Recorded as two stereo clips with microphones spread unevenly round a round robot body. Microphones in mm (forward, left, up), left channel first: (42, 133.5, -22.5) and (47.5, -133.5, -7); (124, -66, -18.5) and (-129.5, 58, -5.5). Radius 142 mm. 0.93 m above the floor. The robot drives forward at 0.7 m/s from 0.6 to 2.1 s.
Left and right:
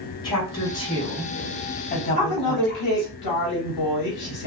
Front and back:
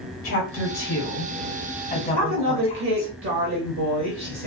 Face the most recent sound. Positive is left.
turn(degrees=105)